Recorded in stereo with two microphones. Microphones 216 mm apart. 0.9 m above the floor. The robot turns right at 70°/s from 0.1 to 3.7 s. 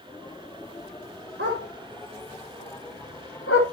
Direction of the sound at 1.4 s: 60° right (ahead or behind).